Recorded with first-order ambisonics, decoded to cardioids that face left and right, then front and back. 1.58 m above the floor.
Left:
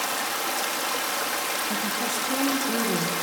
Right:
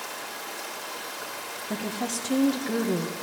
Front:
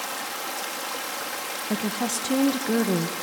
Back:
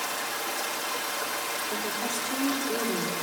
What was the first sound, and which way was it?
Running water, 75° left.